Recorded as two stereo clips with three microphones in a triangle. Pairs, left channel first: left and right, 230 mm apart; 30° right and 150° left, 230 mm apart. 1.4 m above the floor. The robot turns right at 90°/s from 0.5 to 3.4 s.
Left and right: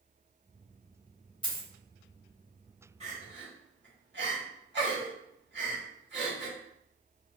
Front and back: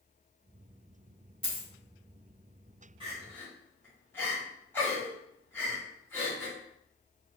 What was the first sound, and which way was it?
A dropped coin, 125° left.